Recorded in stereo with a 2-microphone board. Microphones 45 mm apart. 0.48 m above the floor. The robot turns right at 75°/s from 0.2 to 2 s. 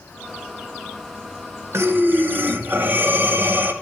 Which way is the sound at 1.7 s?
70° right (ahead or behind).